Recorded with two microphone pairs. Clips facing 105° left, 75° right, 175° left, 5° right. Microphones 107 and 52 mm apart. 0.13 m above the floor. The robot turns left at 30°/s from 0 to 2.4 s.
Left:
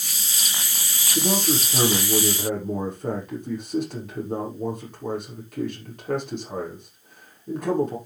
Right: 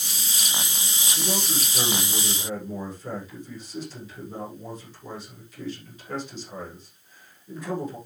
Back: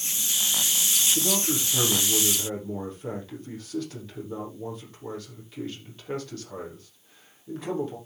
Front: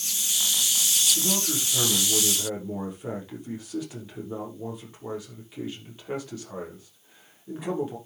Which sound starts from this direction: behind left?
A man speaking, at 1.1 s.